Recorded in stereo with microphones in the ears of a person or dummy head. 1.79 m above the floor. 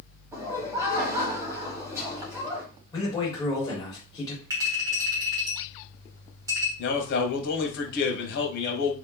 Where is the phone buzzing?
I don't hear a phone buzzing.